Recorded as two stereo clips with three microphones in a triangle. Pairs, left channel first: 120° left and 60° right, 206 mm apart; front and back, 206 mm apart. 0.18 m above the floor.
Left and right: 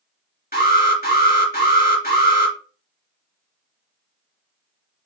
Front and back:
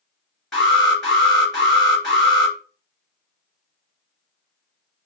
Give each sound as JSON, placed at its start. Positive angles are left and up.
{"t": 0.5, "sound": "an alarm", "azimuth_deg": 85, "distance_m": 2.0}